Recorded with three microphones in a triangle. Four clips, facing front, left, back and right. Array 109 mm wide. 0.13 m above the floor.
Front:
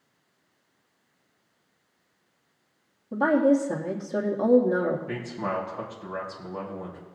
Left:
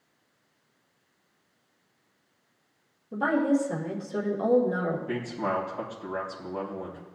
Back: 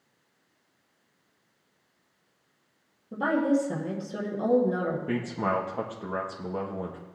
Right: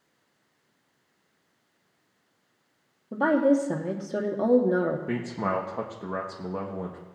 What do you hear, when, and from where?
3.1 s a woman speaking: 65° right, 2.5 m
5.1 s a man speaking: 125° right, 3.5 m